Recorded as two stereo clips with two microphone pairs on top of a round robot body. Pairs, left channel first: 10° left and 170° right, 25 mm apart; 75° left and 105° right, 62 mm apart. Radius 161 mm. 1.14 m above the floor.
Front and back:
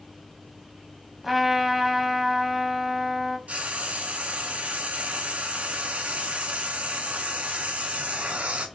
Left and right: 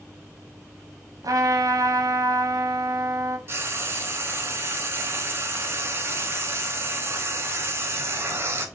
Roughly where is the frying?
Behind right.